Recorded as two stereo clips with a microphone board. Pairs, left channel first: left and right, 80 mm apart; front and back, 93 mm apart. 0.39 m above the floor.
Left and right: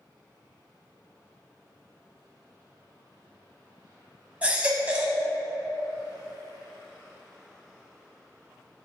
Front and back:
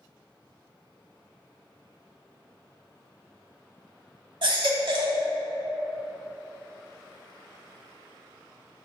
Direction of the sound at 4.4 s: 160° right.